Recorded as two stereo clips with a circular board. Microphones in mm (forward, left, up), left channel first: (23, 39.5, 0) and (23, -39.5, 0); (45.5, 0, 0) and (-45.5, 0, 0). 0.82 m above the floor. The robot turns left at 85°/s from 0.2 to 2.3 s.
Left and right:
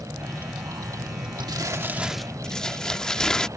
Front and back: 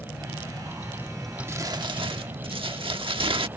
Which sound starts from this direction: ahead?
A vehicle, at 0.0 s.